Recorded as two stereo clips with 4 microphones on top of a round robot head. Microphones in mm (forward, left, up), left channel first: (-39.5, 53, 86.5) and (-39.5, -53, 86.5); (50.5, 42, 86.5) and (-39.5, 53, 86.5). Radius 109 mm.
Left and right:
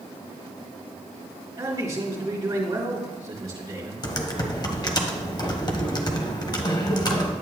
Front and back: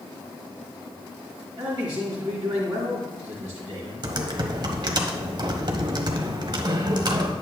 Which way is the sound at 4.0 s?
135° left.